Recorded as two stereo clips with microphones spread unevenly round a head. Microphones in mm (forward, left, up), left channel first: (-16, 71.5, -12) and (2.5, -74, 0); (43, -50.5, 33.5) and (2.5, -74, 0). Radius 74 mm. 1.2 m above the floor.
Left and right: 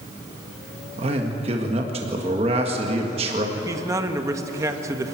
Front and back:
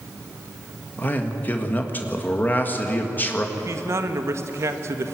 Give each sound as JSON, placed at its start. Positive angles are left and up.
{"t": 1.0, "sound": "a man speaking", "azimuth_deg": -30, "distance_m": 1.8}
{"t": 3.6, "sound": "a man speaking", "azimuth_deg": -155, "distance_m": 1.4}